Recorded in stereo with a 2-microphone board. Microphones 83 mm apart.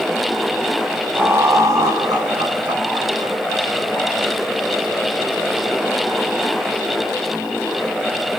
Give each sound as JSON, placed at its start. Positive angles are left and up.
{"t": 1.1, "sound": "laughter", "side_deg": -20, "distance_m": 1.0}